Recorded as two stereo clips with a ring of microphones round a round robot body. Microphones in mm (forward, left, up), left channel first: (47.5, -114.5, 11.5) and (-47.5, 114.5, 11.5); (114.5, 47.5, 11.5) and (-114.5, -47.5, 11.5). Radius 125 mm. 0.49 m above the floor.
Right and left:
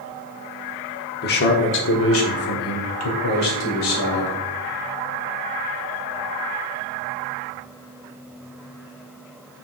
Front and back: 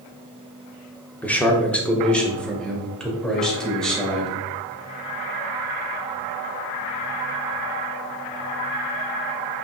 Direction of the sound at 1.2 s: 55° right.